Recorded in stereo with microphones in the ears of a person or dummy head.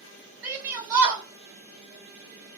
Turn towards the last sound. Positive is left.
turn(degrees=-15)  # may be behind; listen again after turning